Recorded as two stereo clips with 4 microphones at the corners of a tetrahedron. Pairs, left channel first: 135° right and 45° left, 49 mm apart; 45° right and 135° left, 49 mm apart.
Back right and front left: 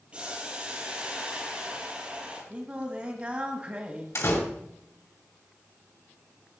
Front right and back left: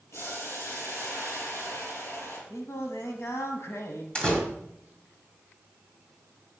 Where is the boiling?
20° right, 4.5 m.